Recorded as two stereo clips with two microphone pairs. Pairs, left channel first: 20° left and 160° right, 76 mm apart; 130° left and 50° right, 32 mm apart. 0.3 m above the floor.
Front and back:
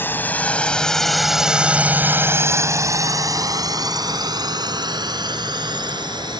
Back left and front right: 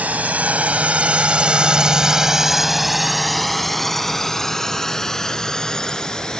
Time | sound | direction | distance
0.0 | a drone | 35° right | ?